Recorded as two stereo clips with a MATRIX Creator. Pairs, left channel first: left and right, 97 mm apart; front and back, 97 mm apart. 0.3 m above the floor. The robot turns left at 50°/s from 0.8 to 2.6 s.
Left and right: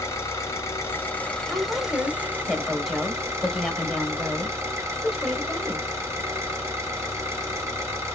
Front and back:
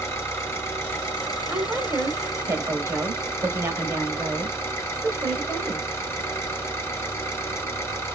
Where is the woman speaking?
125° right, 0.9 m; by 5.8 s straight behind, 0.9 m.